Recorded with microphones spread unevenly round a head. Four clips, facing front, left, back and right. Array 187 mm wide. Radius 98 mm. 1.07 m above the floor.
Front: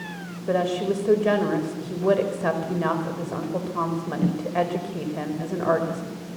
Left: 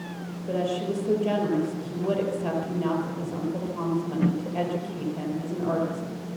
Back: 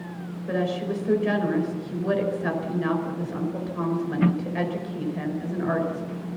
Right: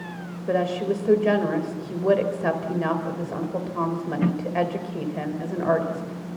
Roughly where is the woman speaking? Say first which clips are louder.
Right 4 dB, front 4 dB; ahead right.